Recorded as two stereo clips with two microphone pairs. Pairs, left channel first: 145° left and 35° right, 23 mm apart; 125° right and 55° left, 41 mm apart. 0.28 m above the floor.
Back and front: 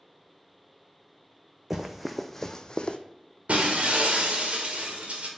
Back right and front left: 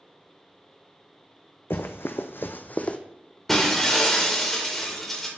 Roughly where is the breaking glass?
Ahead right.